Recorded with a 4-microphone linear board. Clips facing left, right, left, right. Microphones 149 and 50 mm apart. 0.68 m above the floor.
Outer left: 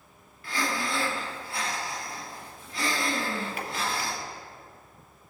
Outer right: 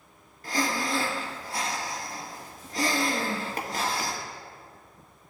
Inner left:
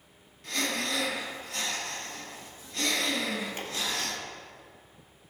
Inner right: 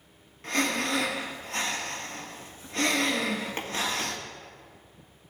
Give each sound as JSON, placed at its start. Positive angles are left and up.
{"t": 0.4, "sound": "breathing", "side_deg": -40, "distance_m": 1.5}